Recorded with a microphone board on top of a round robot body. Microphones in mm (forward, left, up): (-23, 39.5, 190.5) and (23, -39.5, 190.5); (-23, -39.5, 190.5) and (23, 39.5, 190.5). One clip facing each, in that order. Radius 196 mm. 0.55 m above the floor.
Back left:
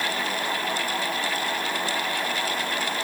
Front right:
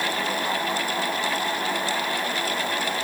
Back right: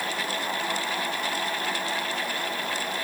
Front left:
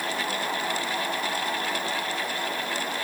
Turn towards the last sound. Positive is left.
No sound to turn to.